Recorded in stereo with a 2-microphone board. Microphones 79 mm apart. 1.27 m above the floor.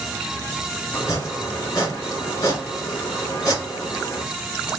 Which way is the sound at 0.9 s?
45° left (ahead or behind).